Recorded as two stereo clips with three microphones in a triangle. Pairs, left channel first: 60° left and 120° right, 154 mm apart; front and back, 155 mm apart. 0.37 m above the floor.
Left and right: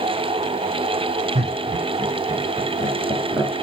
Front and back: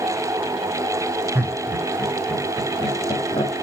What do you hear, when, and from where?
1.4 s laughter: 110° right, 1.9 m; by 3.5 s 50° right, 3 m